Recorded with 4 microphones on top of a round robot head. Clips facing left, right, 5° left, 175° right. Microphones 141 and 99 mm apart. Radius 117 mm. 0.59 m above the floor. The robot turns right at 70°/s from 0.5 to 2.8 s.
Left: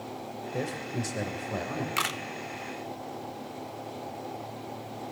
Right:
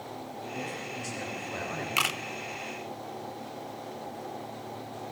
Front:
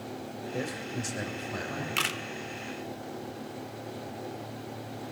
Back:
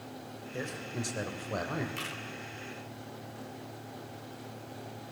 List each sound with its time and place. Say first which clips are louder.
0.5 s a man speaking: left 7 dB, front 2 dB; 80° left, 3.5 m; by 1.9 s 170° left, 3.5 m
2.0 s a camera shutter: even, front 7 dB; 15° right, 0.7 m; by 2.2 s straight ahead, 0.7 m